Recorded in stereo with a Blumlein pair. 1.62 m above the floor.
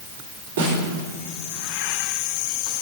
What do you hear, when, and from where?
0.6 s a snare drum: 60° right, 3 m